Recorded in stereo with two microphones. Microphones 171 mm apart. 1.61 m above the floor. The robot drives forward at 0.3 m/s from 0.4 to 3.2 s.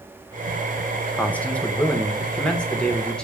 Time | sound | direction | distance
1.1 | a man speaking | 10° left (ahead or behind) | 0.6 m